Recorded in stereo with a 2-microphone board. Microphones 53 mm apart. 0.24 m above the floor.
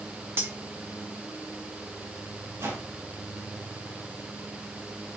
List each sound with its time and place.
0.4 s cutlery clinking: 45° right (ahead or behind), 0.9 m
2.6 s a whoosh: 75° right (ahead or behind), 4.5 m